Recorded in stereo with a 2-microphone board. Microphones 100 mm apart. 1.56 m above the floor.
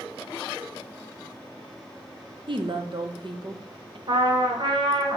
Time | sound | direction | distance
2.5 | a woman speaking | 55° right (ahead or behind) | 1.0 m
4.1 | a trumpet | 55° right (ahead or behind) | 1.6 m